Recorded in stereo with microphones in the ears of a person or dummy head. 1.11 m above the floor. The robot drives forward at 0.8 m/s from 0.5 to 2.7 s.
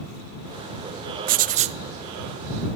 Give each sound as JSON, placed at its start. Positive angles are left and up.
{"t": 1.3, "sound": "writing", "side_deg": -45, "distance_m": 0.7}